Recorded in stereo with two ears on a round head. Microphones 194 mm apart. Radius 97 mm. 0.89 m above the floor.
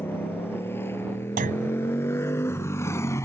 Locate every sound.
0.0 s a motorcycle: 10° left (ahead or behind); by 3.3 s 15° left (ahead or behind)
1.4 s a clunk: 40° right (ahead or behind)